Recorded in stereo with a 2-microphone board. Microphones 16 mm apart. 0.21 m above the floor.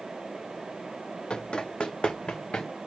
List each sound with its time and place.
1.3 s running footsteps: 50° left (ahead or behind), 0.5 m; by 2.7 s 75° left (ahead or behind), 1.3 m